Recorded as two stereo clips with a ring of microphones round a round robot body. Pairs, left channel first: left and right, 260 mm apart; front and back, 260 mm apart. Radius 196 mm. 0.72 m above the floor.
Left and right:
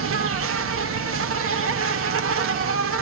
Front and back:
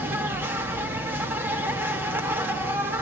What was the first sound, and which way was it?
An insect, 100° right.